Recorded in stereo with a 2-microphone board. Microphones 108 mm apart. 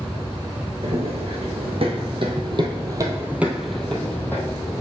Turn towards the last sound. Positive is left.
turn(degrees=30)  # may be behind; listen again after turning